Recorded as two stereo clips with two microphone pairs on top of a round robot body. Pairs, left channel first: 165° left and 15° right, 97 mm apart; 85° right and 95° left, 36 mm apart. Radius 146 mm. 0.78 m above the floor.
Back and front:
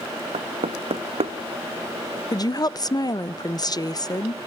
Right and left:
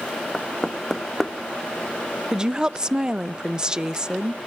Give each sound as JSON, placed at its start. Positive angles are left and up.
{"t": 0.3, "sound": "knocking", "azimuth_deg": 0, "distance_m": 0.8}
{"t": 2.3, "sound": "a woman speaking", "azimuth_deg": 150, "distance_m": 0.7}